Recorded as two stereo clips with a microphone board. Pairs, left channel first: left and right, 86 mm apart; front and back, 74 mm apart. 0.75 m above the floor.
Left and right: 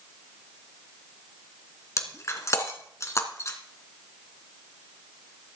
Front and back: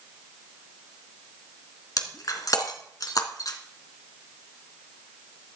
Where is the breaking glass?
35° left, 2 m.